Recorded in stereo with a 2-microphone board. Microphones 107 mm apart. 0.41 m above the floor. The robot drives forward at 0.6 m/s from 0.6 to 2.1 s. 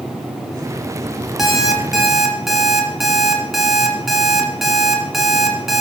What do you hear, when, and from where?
1.4 s an alarm clock: centre (ahead or behind), 1.0 m